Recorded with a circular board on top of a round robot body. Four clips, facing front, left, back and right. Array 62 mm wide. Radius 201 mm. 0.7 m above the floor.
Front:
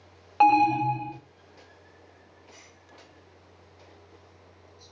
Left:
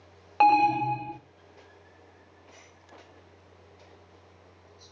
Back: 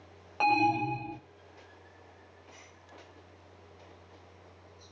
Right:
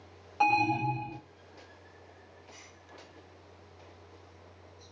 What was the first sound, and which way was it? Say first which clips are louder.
An alarm: left 6 dB, front 7 dB; 65° left.